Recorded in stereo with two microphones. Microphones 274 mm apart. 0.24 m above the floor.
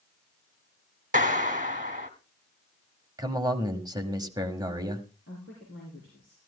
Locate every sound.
1.1 s a clap: 30° right (ahead or behind), 1.5 m
3.2 s a man speaking: 15° right (ahead or behind), 1.4 m
5.3 s a woman speaking: 40° left (ahead or behind), 5.5 m